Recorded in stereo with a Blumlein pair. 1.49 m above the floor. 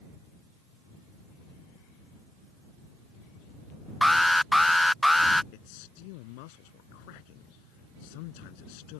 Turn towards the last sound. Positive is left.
turn(degrees=45)